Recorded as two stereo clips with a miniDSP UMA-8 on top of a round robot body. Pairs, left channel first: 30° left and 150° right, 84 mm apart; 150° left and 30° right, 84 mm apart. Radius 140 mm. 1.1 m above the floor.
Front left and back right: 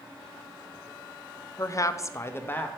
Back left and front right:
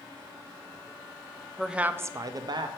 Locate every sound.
1.6 s a woman speaking: 60° left, 0.5 m; by 2.7 s 35° right, 0.6 m